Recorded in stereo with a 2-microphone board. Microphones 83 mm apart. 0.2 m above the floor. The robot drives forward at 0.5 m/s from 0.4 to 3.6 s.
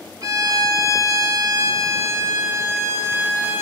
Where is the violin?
45° right (ahead or behind), 0.8 m; by 3.6 s 25° right (ahead or behind), 1.6 m.